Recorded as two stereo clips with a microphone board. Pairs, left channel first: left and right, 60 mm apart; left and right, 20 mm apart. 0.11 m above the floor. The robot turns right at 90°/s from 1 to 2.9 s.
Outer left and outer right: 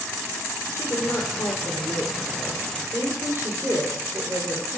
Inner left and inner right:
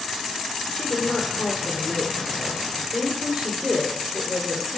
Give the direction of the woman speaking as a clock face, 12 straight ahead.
10 o'clock.